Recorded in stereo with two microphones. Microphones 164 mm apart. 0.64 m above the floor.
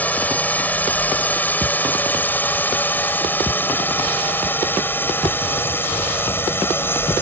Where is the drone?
10° left (ahead or behind); by 7.2 s 15° left (ahead or behind).